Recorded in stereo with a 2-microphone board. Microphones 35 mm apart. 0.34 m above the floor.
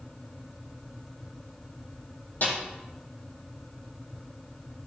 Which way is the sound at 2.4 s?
65° left (ahead or behind).